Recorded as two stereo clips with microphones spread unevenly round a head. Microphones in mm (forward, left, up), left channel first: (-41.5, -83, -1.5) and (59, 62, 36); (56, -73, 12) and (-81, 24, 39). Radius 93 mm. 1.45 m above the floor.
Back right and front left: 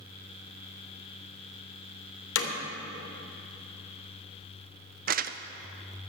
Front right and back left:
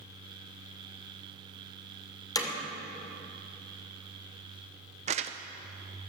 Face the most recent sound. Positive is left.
turn(degrees=95)